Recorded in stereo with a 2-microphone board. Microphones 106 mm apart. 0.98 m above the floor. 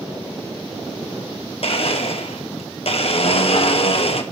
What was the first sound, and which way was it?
A blender, 65° left (ahead or behind).